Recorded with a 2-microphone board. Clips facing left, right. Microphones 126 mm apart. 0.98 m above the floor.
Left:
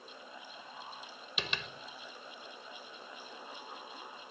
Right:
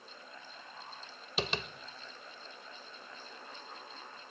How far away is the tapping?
About 1.6 m.